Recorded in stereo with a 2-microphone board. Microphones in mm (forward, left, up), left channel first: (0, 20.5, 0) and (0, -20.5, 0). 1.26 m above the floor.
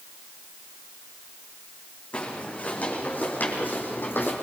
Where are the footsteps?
35° left (ahead or behind), 5 m; by 4.3 s 60° left (ahead or behind), 4 m.